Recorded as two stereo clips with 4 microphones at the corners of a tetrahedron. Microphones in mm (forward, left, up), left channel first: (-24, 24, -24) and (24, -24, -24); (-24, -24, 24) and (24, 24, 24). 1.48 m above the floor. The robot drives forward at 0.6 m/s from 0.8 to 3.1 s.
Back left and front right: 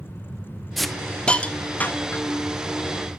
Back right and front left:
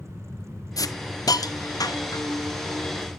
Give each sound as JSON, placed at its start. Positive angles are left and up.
{"t": 0.8, "sound": "a hiss", "azimuth_deg": -135, "distance_m": 0.6}